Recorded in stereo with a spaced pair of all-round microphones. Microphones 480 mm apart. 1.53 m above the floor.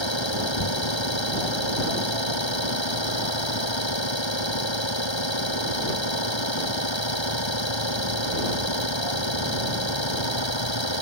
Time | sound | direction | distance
0.0 | an engine running | 65° left (ahead or behind) | ?